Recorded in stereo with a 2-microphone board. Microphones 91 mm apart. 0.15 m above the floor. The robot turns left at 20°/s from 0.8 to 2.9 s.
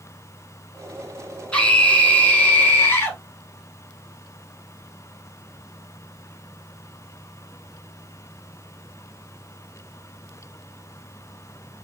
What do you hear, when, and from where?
1.5 s a scream: 10° left (ahead or behind), 1.4 m; by 3.2 s 25° left (ahead or behind), 1.4 m